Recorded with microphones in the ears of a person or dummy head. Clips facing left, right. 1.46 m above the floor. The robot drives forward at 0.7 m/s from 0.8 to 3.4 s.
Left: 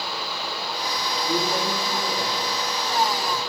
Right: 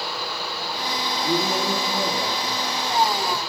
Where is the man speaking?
85° right, 3 m; by 3.4 s 60° right (ahead or behind), 3.5 m.